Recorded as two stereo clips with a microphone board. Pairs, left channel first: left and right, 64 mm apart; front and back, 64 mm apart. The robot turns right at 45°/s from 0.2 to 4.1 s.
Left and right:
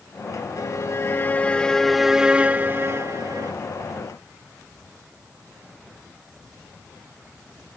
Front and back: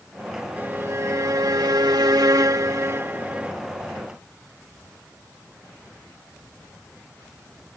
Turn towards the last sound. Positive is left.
turn(degrees=-80)